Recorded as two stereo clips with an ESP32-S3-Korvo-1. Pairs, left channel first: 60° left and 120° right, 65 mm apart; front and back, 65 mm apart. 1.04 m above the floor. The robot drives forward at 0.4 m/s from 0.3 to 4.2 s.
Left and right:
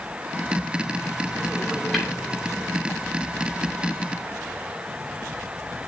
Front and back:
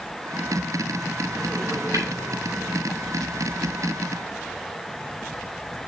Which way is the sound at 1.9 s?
150° left.